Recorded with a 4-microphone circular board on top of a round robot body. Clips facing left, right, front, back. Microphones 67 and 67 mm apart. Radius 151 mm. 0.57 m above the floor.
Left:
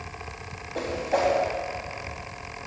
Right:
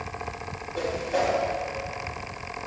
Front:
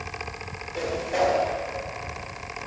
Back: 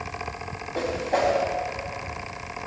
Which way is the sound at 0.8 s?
125° left.